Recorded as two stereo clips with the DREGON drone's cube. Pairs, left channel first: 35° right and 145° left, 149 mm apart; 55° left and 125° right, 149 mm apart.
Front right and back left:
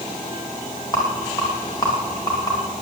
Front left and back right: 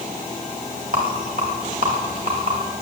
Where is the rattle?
95° right, 7.5 m.